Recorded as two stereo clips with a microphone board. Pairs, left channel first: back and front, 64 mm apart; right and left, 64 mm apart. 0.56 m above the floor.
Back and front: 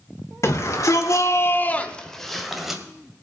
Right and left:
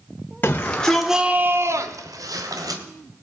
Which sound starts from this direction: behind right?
A shout, at 0.4 s.